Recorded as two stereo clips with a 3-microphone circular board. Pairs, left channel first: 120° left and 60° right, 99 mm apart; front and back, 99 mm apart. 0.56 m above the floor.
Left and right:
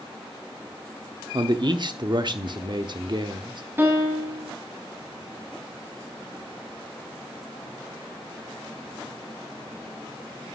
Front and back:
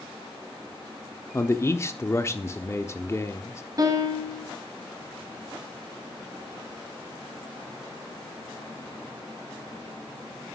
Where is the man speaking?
55° right, 0.9 m.